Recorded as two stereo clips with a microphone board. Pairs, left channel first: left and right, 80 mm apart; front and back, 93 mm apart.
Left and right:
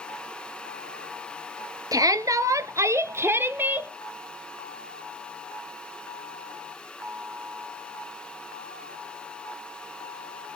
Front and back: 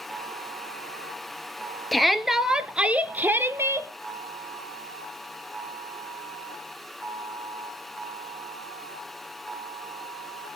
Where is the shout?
85° right, 1.7 m; by 3.9 s 145° right, 1.5 m.